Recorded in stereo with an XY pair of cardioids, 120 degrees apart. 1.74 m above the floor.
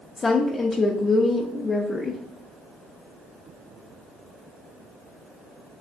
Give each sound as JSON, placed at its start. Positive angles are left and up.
{"t": 0.2, "sound": "a woman speaking", "azimuth_deg": 35, "distance_m": 0.6}